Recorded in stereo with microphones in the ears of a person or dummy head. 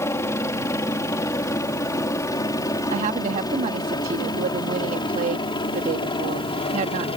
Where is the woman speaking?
45° right (ahead or behind).